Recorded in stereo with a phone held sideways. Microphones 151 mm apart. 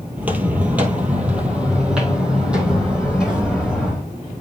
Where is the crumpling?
I don't hear crumpling.